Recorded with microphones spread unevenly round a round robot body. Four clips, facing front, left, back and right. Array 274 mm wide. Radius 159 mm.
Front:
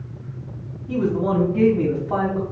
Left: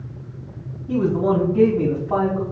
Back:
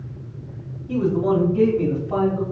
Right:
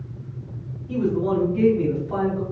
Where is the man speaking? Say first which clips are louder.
Left 3 dB, back 1 dB; 75° left, 3 m; by 2.4 s 50° left, 3.5 m.